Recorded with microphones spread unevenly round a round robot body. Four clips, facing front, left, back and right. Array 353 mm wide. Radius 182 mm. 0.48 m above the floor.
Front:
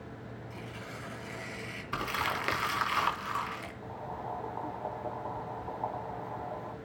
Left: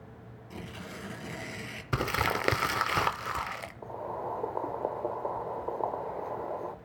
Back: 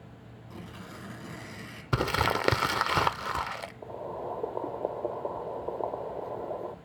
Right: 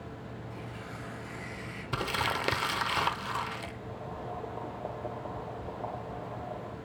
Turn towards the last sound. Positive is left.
turn(degrees=155)